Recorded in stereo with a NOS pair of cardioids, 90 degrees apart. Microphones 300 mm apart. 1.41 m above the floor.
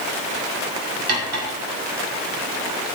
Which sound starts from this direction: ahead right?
Cutlery clinking, at 1.1 s.